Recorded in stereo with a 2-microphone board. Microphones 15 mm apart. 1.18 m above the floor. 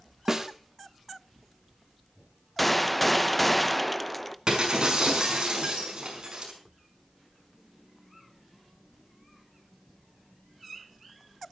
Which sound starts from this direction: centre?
A gunshot, at 2.6 s.